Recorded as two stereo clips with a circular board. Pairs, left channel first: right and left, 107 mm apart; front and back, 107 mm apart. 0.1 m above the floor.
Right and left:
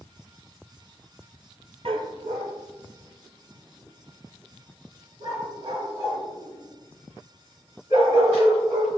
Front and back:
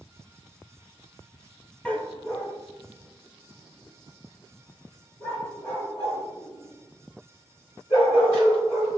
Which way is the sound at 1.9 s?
80° left.